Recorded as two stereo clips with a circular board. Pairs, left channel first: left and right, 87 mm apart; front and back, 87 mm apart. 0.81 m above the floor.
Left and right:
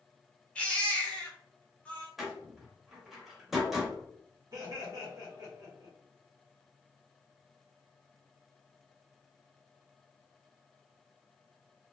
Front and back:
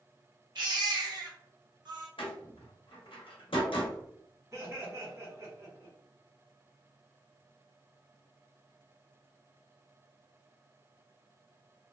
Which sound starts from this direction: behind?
A baby crying, at 0.6 s.